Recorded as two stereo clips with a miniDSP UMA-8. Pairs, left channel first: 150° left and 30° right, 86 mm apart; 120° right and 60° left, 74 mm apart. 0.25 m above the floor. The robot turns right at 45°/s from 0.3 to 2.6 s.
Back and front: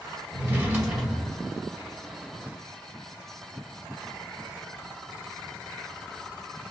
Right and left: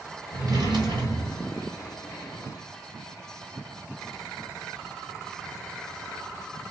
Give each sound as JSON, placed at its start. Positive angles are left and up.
{"t": 0.3, "sound": "a drawer", "azimuth_deg": 25, "distance_m": 1.3}